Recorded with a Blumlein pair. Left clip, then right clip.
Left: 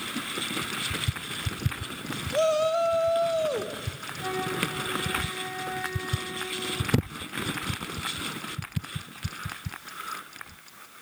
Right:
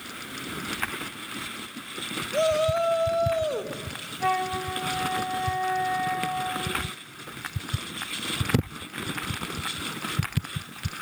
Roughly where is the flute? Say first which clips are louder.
Right 4 dB; ahead right.